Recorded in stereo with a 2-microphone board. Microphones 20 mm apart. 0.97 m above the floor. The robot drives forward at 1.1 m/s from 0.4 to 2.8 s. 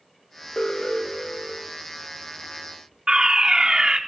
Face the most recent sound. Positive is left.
turn(degrees=-40)  # may be behind; listen again after turning